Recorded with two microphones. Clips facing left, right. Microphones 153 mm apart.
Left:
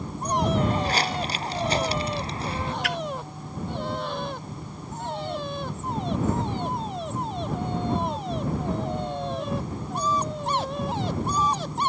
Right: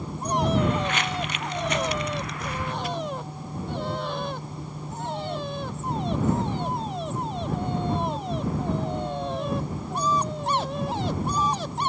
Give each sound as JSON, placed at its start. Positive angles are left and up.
{"t": 0.6, "sound": "footsteps", "side_deg": 35}
{"t": 2.8, "sound": "a splash", "side_deg": 75}